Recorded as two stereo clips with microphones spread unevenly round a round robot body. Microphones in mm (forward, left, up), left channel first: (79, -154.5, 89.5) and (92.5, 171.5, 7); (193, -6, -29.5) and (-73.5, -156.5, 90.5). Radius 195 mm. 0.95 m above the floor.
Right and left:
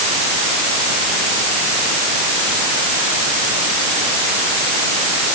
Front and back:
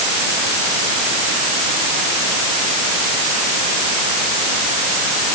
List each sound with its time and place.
Only background noise.